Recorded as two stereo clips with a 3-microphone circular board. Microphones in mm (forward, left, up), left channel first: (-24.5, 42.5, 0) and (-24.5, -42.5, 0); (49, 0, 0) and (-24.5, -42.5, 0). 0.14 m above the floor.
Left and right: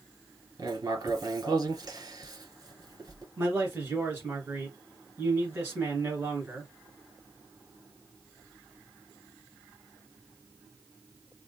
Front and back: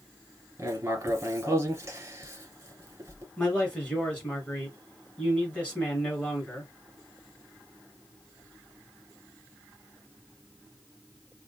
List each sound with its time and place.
0.6 s writing: 100° right, 1.0 m
3.4 s a man speaking: 35° right, 2 m